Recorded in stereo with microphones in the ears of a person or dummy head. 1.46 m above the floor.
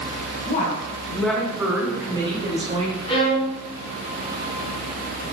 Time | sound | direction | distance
0.5 | a woman speaking | 35° left (ahead or behind) | 0.8 m
3.1 | a violin | 30° left (ahead or behind) | 0.9 m